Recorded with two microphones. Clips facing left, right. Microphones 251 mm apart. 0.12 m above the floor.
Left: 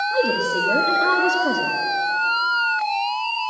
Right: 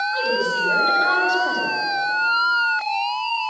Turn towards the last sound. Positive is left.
turn(degrees=55)  # may be behind; listen again after turning